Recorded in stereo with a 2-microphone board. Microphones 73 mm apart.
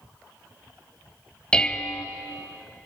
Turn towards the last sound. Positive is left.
turn(degrees=10)  # may be behind; listen again after turning